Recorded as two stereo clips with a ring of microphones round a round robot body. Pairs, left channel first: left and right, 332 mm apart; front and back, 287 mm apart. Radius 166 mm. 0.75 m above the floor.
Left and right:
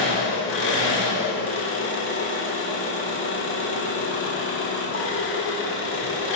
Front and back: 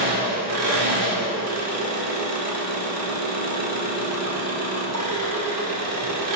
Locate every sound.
0.0 s an engine running: 145° left, 1.2 m